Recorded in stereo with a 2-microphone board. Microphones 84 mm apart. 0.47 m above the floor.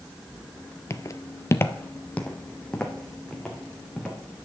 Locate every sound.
0.9 s footsteps: 35° left (ahead or behind), 0.6 m; by 4.2 s 5° left (ahead or behind), 2.5 m